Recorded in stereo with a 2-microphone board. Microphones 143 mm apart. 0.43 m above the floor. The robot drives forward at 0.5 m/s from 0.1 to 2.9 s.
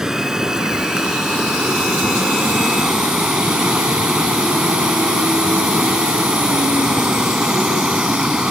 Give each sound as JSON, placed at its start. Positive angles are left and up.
{"t": 0.0, "sound": "running water", "side_deg": -5}